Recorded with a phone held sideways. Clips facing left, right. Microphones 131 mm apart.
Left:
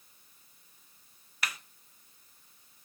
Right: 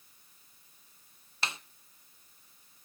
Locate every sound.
1.4 s a snare drum: 25° right (ahead or behind), 0.5 m